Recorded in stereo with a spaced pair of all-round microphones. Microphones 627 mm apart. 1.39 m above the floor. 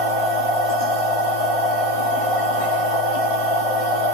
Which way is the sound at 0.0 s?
60° left (ahead or behind).